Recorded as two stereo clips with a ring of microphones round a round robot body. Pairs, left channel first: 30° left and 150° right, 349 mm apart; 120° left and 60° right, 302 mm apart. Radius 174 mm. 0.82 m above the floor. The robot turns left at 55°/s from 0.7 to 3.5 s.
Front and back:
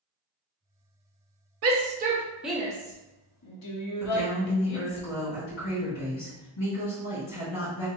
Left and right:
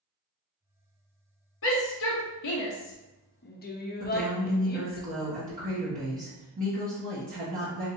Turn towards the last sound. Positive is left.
turn(degrees=0)